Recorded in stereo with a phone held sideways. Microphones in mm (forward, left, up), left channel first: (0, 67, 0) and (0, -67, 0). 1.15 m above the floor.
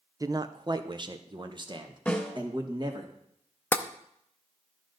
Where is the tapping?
15° left (ahead or behind), 0.5 m.